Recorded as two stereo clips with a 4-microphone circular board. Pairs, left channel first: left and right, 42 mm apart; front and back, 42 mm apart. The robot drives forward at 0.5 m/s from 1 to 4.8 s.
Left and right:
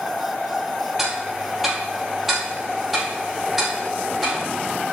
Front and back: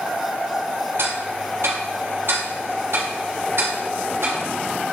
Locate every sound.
1.0 s ticking: 175° right, 2.5 m